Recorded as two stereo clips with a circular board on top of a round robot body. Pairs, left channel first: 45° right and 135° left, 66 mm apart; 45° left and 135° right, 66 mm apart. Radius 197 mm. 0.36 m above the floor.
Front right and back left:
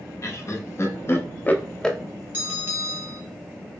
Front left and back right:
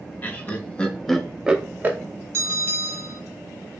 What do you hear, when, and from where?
0.2 s laughter: 15° right, 1.2 m; by 2.0 s 120° right, 0.9 m
2.3 s a bell: 175° right, 2 m